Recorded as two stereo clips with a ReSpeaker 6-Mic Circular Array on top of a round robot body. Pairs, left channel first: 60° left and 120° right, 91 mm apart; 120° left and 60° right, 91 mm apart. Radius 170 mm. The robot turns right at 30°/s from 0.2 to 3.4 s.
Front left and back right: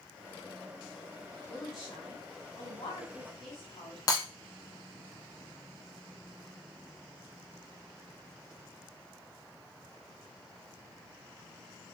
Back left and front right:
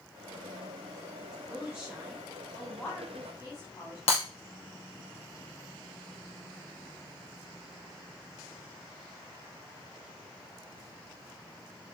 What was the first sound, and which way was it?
A woman speaking, 5° left.